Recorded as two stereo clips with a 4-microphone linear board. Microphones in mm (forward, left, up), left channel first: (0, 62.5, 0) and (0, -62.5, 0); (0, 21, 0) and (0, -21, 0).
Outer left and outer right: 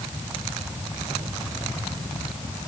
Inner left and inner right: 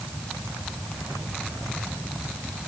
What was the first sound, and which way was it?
Only background noise.